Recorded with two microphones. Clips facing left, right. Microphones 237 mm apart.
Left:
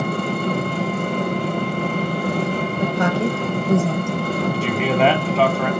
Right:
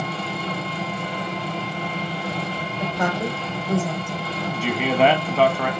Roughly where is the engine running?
Left.